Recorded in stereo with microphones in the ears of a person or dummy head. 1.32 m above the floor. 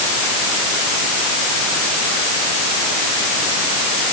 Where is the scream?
I don't hear a scream.